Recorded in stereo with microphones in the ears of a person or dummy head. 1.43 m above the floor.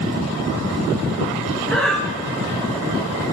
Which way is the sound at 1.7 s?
Centre (ahead or behind).